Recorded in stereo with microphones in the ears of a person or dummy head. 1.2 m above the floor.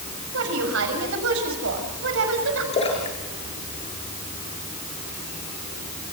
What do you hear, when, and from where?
0.3 s a woman speaking: 70° right (ahead or behind), 6.5 m
2.7 s a splash: 35° left (ahead or behind), 5.5 m